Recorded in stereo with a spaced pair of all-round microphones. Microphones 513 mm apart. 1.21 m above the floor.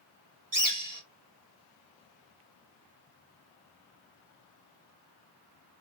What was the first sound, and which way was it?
A bird, 40° right (ahead or behind).